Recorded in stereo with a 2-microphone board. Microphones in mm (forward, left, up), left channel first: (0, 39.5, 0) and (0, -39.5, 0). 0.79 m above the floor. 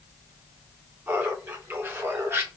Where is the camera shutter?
I don't hear a camera shutter.